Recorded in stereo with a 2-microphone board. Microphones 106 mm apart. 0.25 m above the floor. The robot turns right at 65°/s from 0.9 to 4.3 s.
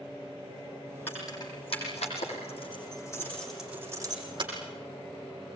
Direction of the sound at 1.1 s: 15° left (ahead or behind).